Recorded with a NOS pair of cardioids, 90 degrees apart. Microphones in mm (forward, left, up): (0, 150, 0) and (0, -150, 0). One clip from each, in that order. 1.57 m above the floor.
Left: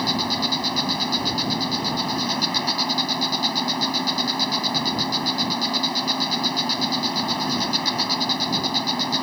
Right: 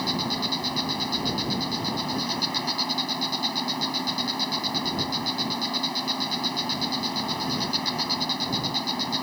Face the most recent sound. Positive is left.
turn(degrees=30)